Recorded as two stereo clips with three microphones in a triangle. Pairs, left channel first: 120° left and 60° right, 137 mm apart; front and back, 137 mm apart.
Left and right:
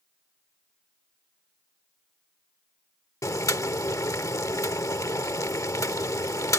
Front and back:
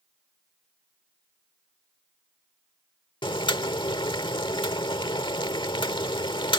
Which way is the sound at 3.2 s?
55° left.